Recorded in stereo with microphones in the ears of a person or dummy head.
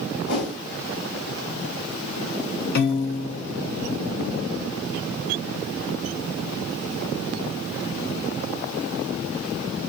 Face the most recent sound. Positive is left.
turn(degrees=55)  # may be behind; listen again after turning